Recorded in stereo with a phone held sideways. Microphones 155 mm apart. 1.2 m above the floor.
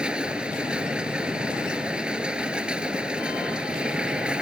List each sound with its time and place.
0.0 s a machine running: 5° right (ahead or behind)